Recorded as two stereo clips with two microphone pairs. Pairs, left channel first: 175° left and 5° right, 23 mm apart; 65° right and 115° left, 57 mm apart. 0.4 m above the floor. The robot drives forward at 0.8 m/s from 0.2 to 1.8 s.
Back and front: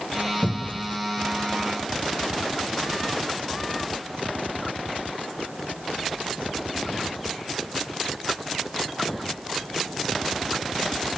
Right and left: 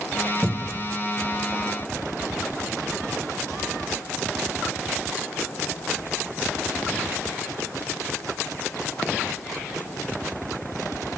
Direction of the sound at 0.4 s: 155° right.